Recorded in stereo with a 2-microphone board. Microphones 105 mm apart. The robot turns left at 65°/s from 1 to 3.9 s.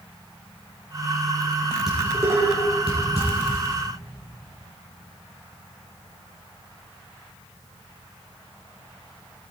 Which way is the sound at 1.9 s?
5° right (ahead or behind).